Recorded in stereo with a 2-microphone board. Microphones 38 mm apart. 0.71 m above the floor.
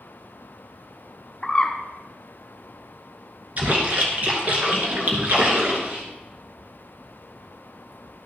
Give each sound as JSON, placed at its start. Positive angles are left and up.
{"t": 1.4, "sound": "a bird", "side_deg": 15, "distance_m": 1.3}
{"t": 3.6, "sound": "a splash", "side_deg": -45, "distance_m": 2.0}